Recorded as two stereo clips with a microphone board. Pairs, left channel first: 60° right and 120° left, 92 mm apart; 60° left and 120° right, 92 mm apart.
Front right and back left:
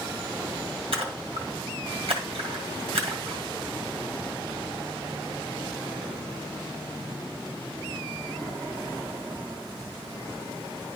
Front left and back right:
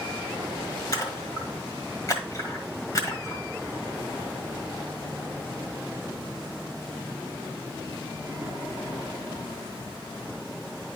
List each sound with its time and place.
0.9 s a splash: 110° left, 1.8 m